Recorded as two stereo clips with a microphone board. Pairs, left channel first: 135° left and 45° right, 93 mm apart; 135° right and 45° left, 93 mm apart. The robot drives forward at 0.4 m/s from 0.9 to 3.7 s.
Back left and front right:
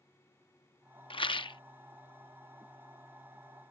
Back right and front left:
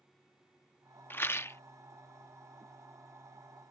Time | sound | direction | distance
1.1 | a rattle | 160° left | ?